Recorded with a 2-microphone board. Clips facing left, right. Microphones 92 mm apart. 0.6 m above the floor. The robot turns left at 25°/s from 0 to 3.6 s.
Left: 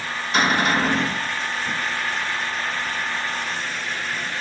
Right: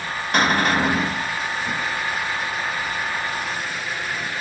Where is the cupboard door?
60° right (ahead or behind), 1.3 m; by 1.1 s 40° right (ahead or behind), 1.3 m.